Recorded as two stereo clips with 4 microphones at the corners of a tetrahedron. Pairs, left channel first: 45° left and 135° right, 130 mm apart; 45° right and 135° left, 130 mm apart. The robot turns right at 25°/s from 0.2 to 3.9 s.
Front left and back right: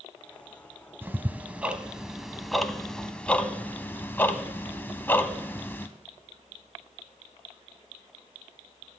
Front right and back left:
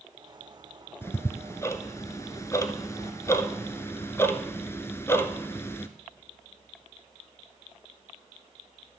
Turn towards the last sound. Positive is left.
turn(degrees=-10)